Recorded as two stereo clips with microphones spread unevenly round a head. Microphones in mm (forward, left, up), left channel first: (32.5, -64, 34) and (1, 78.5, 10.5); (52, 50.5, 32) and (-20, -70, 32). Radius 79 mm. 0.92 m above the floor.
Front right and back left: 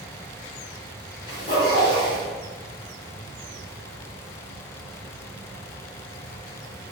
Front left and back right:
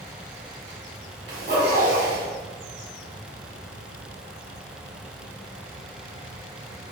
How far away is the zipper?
About 1.1 m.